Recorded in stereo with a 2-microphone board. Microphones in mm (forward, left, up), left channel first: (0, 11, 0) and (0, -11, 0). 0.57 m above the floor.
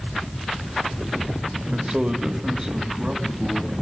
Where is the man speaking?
35° right (ahead or behind), 1.9 m; by 3.7 s 15° right (ahead or behind), 4.5 m.